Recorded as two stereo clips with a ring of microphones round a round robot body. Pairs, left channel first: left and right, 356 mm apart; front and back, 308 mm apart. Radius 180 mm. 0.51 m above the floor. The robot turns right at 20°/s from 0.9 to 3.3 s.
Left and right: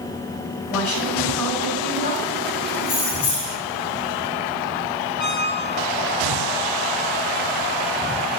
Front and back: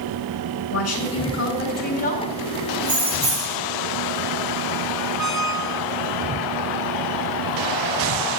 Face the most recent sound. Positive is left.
turn(degrees=45)